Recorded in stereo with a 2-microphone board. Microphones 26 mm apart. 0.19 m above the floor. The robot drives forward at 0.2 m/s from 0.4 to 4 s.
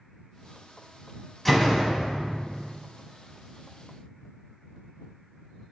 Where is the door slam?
10° left (ahead or behind), 0.7 m.